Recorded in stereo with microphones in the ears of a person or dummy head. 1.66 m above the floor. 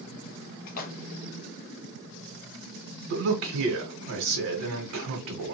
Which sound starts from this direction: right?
A man speaking, at 3.1 s.